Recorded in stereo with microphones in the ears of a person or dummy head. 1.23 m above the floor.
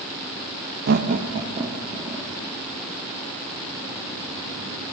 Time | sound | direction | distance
0.9 | laughter | 45° right (ahead or behind) | 0.5 m